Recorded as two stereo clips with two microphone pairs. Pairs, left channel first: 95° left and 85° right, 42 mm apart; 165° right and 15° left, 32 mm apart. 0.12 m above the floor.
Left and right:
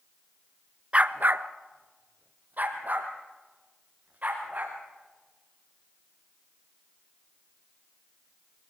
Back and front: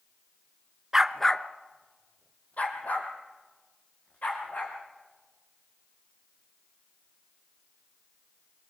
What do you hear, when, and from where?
0.9 s a dog barking: 40° right, 0.6 m; by 4.8 s 135° right, 4.5 m